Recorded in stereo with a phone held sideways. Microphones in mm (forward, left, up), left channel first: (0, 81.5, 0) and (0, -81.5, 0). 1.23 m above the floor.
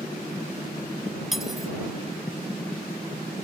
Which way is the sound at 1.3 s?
Centre (ahead or behind).